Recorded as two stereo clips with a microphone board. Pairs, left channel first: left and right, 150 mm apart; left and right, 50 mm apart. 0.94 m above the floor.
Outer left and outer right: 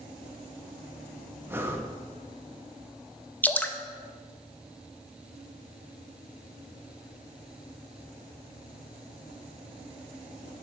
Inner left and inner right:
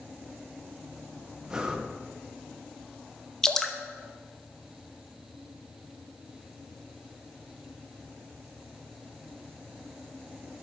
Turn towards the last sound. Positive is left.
turn(degrees=10)  # may be behind; listen again after turning